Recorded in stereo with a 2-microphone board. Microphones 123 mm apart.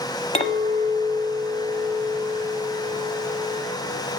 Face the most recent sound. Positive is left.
turn(degrees=55)  # may be behind; listen again after turning